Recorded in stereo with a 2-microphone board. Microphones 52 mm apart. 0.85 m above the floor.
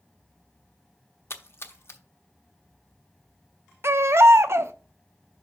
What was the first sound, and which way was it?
A splash, 50° left (ahead or behind).